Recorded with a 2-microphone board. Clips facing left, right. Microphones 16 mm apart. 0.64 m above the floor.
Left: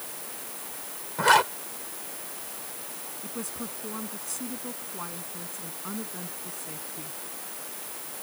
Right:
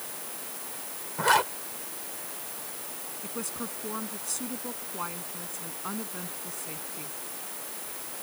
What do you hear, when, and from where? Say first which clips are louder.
1.2 s a zipper: left 3 dB; 15° left (ahead or behind)
3.2 s a woman speaking: right 1 dB; 20° right (ahead or behind)